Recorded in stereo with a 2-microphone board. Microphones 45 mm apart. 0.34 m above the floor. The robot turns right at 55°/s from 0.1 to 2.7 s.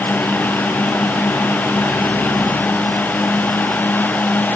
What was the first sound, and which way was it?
Only background noise.